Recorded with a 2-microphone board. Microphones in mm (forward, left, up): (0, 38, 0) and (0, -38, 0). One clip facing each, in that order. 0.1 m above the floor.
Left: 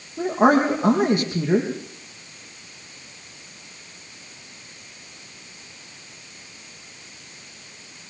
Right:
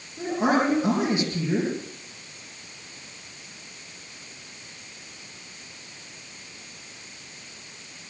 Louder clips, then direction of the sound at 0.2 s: Left 5 dB; 55° left (ahead or behind).